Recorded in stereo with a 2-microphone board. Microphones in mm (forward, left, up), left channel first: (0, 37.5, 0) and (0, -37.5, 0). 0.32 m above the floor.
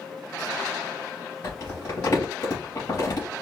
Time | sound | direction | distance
1.4 | crumpling | 60° left (ahead or behind) | 3.5 m